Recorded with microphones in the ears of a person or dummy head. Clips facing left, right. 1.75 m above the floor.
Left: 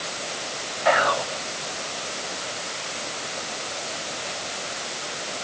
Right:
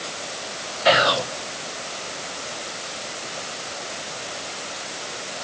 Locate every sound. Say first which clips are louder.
0.8 s whispering: right 2 dB; 40° right (ahead or behind), 0.9 m